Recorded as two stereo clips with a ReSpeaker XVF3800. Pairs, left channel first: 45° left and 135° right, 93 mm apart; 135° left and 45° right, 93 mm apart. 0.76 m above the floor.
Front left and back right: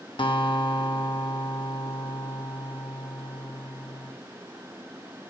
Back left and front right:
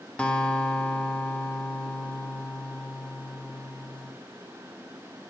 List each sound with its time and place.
0.2 s a guitar: 60° left, 0.6 m